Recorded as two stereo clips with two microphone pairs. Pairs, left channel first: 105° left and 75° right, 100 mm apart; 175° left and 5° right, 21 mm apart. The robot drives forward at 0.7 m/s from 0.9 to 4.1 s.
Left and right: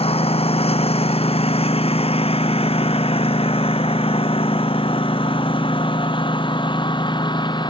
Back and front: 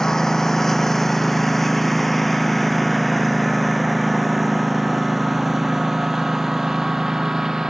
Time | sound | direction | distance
0.0 | a lawn mower | 110° left | ?